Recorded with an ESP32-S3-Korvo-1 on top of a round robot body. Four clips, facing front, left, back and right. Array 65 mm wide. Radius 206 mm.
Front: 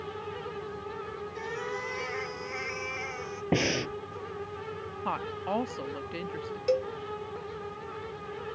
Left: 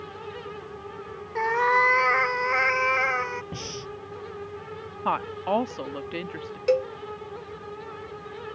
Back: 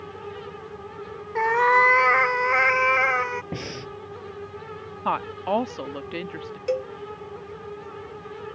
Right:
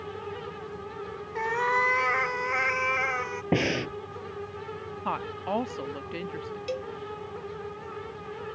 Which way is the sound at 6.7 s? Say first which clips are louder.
Left 12 dB, back 1 dB; 100° left.